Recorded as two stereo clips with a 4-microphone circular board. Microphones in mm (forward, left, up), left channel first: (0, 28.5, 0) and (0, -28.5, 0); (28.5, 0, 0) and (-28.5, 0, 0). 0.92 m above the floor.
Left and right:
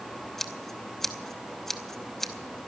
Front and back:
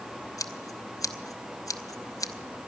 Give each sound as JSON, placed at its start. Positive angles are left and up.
{"t": 0.4, "sound": "scissors", "azimuth_deg": 5, "distance_m": 0.9}